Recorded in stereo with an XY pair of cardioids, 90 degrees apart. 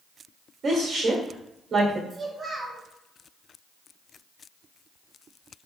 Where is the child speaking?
35° right, 1.0 m.